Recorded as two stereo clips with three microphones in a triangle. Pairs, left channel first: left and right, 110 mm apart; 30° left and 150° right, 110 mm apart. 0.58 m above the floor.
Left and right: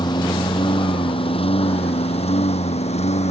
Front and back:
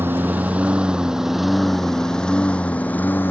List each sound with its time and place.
0.0 s a lawn mower: 140° left; by 3.3 s 105° left